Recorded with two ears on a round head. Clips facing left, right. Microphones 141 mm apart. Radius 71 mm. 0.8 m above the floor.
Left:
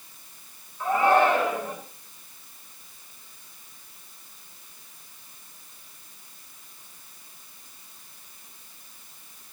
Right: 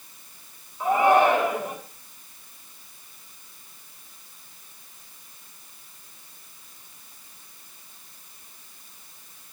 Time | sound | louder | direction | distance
0.8 | a shout | right 2 dB | 15° right (ahead or behind) | 8.5 m